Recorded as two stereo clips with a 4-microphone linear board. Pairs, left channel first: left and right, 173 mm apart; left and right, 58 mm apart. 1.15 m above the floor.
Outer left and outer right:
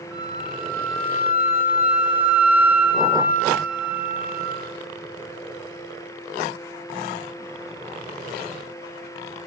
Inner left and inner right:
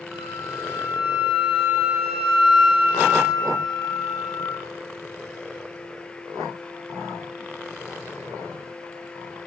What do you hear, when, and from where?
0.1 s a flute: 10° right (ahead or behind), 3.5 m